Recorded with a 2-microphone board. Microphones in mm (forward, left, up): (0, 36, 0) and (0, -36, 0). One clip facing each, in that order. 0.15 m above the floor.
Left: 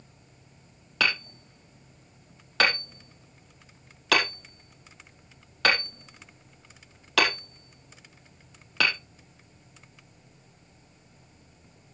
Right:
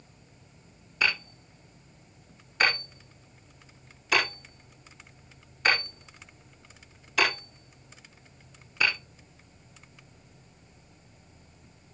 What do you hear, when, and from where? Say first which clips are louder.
1.0 s hammering: left 1 dB; 75° left (ahead or behind), 4 m